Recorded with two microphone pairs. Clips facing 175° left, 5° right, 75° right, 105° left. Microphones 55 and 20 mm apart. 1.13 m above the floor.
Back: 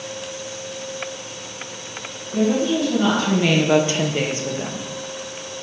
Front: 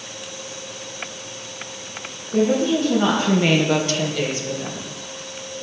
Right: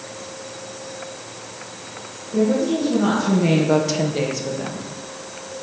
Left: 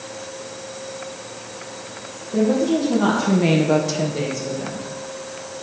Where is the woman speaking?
50° left, 1.8 m; by 4.9 s 130° right, 1.6 m.